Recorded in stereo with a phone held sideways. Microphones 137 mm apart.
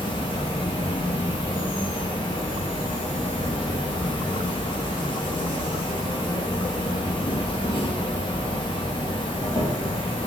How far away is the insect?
About 1.0 m.